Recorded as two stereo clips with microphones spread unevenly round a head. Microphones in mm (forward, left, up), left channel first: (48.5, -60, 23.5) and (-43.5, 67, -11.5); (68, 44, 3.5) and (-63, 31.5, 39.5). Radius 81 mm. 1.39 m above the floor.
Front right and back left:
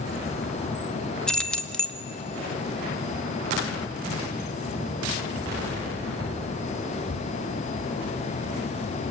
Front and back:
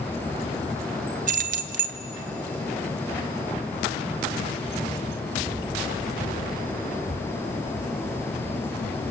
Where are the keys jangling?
135° right, 0.9 m.